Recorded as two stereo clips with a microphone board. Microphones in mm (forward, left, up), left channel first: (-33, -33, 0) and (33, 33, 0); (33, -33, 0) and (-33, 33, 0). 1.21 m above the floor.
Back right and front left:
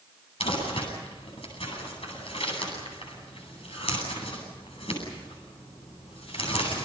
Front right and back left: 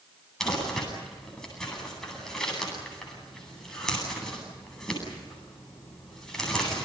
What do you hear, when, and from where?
0.4 s crumpling: 130° right, 9.5 m